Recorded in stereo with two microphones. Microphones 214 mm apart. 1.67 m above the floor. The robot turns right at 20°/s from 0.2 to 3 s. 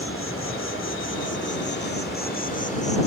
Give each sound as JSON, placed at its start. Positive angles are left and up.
{"t": 0.0, "sound": "an insect", "azimuth_deg": 90}